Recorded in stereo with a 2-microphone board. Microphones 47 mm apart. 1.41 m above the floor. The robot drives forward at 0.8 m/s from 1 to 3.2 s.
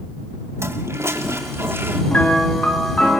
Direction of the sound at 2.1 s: 25° left (ahead or behind).